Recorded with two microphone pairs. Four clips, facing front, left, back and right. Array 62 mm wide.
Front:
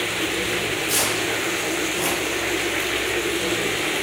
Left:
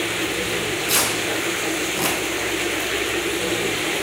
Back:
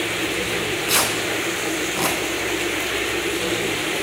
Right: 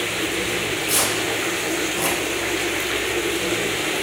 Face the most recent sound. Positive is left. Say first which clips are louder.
# left 1 dB, back 2 dB
turn(degrees=160)